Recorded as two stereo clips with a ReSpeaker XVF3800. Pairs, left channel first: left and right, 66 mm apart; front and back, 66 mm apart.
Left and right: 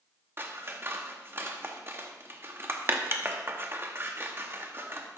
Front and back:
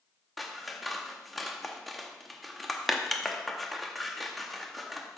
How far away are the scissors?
About 0.9 m.